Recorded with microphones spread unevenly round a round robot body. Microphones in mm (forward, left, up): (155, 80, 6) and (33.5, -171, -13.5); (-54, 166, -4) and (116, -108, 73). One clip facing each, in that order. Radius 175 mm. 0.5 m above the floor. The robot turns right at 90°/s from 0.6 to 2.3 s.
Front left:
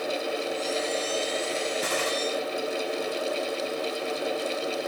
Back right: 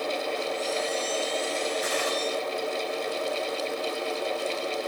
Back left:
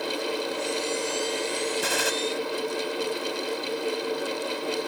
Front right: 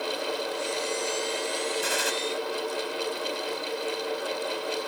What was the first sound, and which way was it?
A gunshot, 110° left.